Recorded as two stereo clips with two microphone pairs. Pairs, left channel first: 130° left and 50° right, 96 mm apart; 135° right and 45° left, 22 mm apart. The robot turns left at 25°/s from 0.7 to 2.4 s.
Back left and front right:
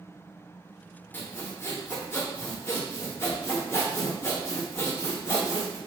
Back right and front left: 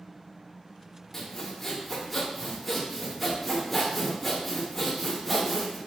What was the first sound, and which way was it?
Sawing, 165° left.